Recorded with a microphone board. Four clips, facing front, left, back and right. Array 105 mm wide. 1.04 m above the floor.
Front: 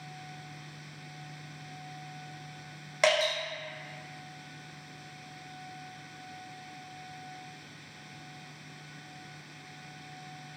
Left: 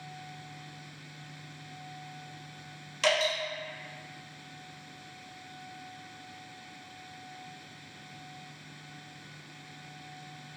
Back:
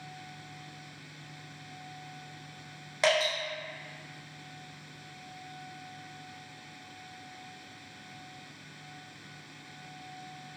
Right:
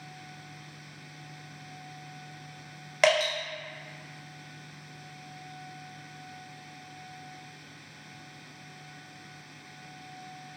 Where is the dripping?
85° right, 1.1 m.